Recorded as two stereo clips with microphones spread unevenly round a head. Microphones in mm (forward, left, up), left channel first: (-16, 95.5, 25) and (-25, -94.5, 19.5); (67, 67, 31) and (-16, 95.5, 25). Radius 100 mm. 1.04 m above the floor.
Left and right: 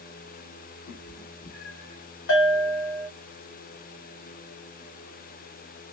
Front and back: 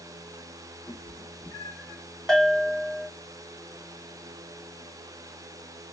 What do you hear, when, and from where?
0.9 s a cat meowing: 30° left, 1.4 m; by 2.0 s 60° left, 1.6 m
2.3 s a bell: 65° left, 1.9 m